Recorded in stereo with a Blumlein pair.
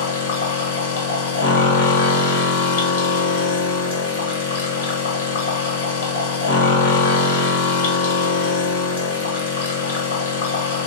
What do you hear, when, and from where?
0.0 s a machine running: 65° left, 1.4 m